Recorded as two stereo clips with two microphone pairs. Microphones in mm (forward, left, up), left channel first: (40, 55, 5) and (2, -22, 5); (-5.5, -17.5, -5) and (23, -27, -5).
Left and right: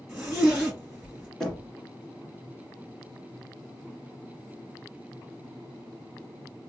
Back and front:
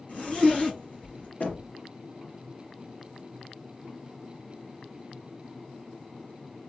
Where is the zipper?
160° left, 2.5 m.